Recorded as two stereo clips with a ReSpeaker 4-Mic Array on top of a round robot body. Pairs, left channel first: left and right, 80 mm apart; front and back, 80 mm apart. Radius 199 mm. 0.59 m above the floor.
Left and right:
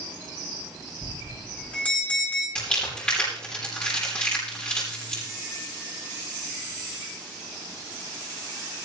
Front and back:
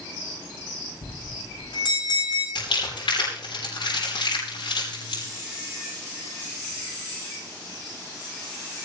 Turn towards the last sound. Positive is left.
turn(degrees=15)